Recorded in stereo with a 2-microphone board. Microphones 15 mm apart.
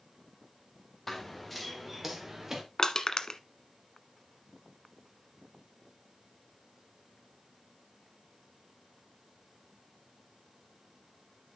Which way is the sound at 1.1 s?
15° left (ahead or behind).